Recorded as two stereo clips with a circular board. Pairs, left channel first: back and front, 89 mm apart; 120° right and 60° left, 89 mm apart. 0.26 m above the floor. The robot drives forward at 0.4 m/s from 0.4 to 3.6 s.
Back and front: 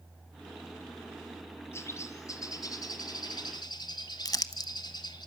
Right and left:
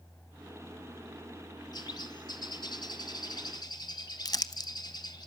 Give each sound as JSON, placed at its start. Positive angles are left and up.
{"t": 1.7, "sound": "a bird", "azimuth_deg": -125, "distance_m": 1.2}
{"t": 4.2, "sound": "crumpling", "azimuth_deg": -145, "distance_m": 0.7}